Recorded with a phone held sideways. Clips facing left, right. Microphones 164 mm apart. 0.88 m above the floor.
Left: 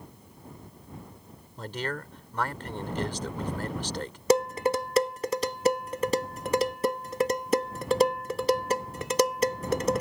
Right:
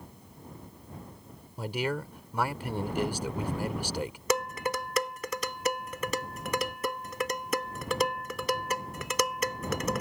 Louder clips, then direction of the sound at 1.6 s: Right 3 dB; 10° right (ahead or behind).